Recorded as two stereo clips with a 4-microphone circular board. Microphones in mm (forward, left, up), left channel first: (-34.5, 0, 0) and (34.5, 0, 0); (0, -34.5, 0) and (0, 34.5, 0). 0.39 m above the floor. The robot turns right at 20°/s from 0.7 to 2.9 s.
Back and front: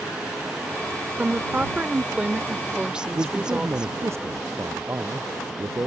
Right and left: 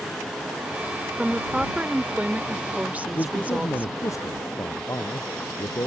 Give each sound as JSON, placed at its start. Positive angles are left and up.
{"t": 1.2, "sound": "a woman speaking", "azimuth_deg": 25}
{"t": 3.1, "sound": "a man speaking", "azimuth_deg": -50}